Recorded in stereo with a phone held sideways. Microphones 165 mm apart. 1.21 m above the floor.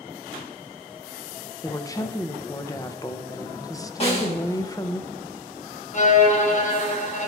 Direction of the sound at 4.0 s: 40° left (ahead or behind).